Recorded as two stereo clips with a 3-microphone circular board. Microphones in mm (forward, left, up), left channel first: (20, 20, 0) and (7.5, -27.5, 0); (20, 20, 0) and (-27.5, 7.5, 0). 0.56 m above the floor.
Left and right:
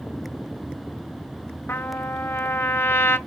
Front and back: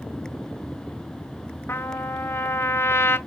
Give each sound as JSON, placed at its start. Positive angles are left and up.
{"t": 1.7, "sound": "a trumpet", "azimuth_deg": 40, "distance_m": 0.7}